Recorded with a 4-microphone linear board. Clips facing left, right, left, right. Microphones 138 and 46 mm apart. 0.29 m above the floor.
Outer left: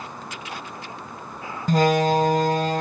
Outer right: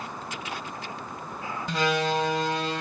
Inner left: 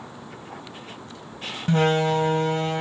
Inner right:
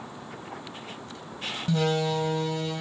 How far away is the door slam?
About 1.2 m.